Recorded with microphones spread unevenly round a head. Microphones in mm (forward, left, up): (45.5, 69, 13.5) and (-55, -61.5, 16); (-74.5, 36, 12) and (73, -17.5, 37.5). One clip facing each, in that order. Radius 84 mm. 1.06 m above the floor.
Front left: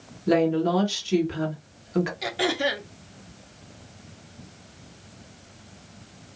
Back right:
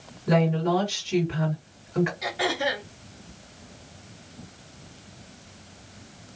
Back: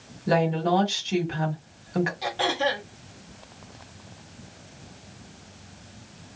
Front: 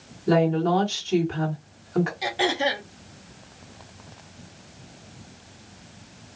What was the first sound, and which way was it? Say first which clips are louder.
A woman speaking: front left 2 dB, front 2 dB; 90° left.